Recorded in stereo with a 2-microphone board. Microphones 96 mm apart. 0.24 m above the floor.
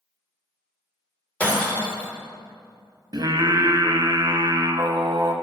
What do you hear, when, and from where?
1.4 s breaking glass: 10° left (ahead or behind), 2.5 m
3.1 s singing: 45° right (ahead or behind), 0.7 m